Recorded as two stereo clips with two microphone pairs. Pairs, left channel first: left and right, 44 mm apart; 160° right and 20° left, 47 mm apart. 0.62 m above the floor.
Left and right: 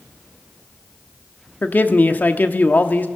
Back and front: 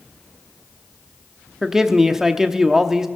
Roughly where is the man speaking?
Left.